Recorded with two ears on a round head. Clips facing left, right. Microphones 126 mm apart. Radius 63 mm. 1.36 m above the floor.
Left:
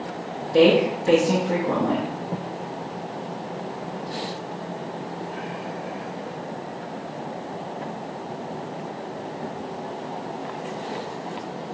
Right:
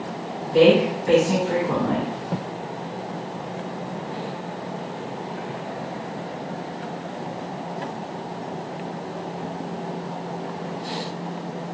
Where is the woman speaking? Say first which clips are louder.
Right 1 dB; 30° left (ahead or behind), 0.6 m.